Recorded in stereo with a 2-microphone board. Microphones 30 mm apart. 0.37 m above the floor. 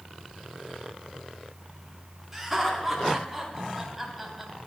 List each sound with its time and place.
2.3 s laughter: 5° right (ahead or behind), 4.5 m